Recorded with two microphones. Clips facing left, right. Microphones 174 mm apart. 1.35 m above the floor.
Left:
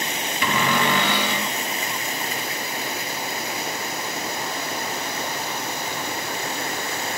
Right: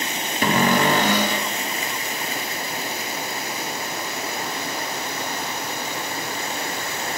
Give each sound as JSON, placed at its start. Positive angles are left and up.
{"t": 0.4, "sound": "a cupboard door", "side_deg": -40, "distance_m": 0.7}